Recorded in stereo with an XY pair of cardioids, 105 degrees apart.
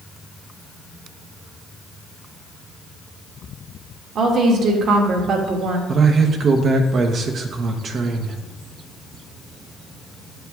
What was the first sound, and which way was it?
A woman speaking, 65° right.